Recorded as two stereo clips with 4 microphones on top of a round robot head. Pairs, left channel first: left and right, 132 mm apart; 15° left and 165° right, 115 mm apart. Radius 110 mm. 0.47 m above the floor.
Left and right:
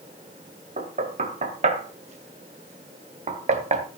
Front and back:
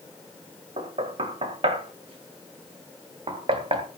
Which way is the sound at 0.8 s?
125° right.